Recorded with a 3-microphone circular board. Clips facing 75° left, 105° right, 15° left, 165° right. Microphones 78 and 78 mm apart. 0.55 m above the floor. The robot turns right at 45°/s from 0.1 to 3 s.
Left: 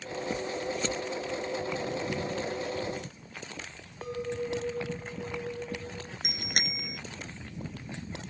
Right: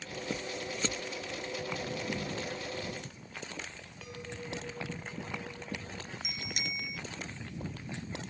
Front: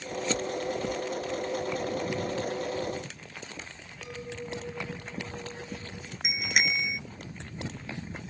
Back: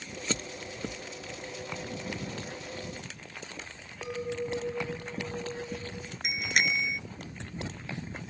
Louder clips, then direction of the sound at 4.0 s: Left 11 dB, back 6 dB; 130° left.